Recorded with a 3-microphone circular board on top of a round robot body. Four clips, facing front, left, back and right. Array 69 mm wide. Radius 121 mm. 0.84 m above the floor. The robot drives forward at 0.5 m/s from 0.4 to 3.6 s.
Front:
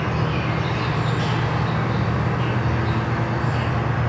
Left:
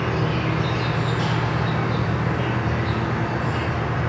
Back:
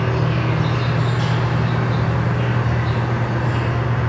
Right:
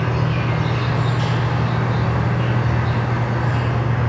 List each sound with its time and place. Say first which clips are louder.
0.0 s an insect: right 1 dB, back 2 dB; 160° left, 1.1 m; by 4.1 s 170° left, 2.5 m